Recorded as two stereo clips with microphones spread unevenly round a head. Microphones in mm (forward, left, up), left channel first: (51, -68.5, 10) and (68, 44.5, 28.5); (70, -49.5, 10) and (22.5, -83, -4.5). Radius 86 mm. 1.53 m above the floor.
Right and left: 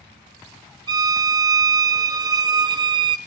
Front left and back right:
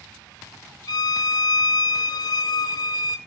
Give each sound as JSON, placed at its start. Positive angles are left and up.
{"t": 0.9, "sound": "a violin", "azimuth_deg": 25, "distance_m": 1.0}